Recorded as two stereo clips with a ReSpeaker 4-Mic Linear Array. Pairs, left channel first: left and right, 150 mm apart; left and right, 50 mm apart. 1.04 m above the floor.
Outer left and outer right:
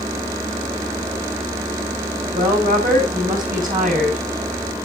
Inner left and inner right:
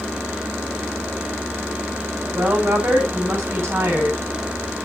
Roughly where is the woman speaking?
Right.